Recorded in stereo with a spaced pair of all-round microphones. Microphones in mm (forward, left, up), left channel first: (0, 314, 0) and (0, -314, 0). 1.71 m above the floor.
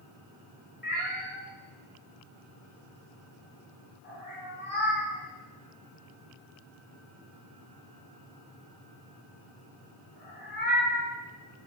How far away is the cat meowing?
About 1.1 m.